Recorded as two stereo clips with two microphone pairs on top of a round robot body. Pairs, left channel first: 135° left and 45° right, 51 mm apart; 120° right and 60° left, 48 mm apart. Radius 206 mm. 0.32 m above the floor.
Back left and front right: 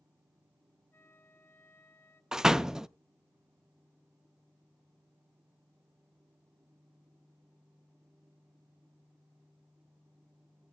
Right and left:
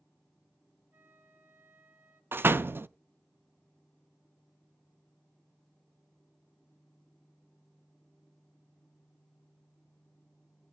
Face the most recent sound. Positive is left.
turn(degrees=30)